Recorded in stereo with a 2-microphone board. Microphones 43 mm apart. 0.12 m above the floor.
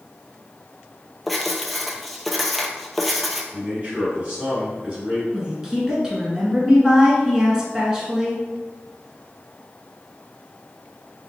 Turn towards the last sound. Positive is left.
turn(degrees=-15)  # may be behind; listen again after turning